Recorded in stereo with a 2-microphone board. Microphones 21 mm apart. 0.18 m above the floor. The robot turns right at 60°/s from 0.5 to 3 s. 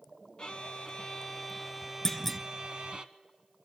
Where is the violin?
110° left, 1.0 m; by 3.0 s 100° right, 1.0 m.